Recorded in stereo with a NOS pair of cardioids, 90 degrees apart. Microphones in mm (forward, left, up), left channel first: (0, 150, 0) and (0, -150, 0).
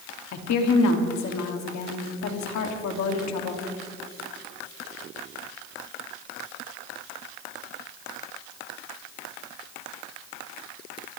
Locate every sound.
0.3 s a woman speaking: 70° left, 2.5 m